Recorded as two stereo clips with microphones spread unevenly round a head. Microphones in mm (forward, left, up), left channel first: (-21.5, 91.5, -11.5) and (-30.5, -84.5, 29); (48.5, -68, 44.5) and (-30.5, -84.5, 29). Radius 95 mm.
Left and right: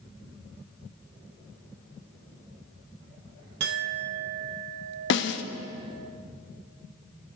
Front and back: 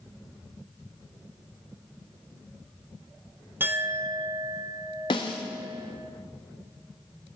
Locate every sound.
3.6 s a clink: 100° right, 1.2 m
5.1 s a snare drum: 65° left, 0.9 m